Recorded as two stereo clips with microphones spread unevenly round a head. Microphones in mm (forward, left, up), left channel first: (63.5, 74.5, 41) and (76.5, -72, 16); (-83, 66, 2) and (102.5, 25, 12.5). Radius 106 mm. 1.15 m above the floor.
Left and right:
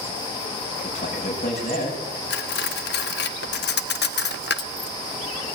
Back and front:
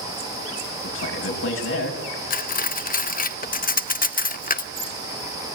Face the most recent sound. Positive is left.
turn(degrees=120)